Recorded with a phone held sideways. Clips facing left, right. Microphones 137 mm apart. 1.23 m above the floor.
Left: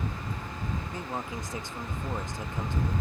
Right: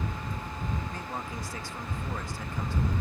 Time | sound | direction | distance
0.9 | a man speaking | 20° left (ahead or behind) | ?